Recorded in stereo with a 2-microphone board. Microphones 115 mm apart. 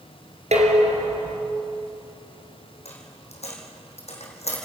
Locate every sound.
0.5 s dishes clattering: 80° right, 3 m
2.9 s a dropped coin: 70° left (ahead or behind), 3 m